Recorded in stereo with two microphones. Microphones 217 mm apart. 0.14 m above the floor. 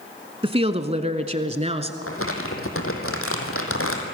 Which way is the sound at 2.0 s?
75° left (ahead or behind).